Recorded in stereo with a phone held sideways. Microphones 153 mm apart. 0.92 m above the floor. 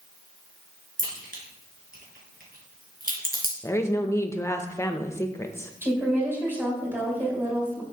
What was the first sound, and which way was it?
A crack, 70° right (ahead or behind).